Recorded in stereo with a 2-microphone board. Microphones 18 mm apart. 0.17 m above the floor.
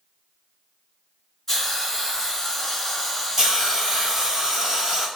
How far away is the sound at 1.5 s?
About 1.9 m.